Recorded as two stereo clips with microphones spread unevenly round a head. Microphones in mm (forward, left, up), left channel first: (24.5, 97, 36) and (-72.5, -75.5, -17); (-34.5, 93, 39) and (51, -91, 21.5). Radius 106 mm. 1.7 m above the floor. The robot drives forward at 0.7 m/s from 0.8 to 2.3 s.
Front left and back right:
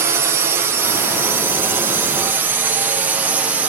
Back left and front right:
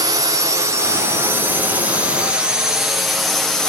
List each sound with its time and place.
0.0 s a drone: 105° right; by 3.7 s 150° right